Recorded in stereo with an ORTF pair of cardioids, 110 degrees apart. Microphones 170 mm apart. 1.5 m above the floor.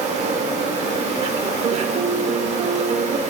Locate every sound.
0.0 s an insect: 40° right, 1.5 m
1.6 s a piano: 45° right, 0.7 m